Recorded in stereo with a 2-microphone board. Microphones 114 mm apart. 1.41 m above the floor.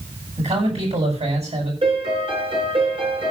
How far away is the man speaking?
About 9.5 m.